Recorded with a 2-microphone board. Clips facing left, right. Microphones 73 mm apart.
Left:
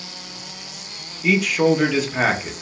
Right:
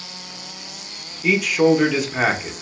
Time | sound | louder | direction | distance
1.2 | a man speaking | right 1 dB | 5° right (ahead or behind) | 0.5 m